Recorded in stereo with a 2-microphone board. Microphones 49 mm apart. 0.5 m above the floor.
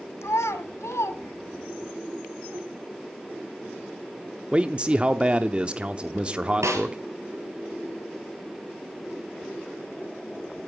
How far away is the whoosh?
About 2.5 m.